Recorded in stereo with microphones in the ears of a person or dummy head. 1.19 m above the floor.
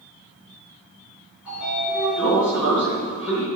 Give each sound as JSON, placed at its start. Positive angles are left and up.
{"t": 1.4, "sound": "a sliding door", "side_deg": -5, "distance_m": 5.5}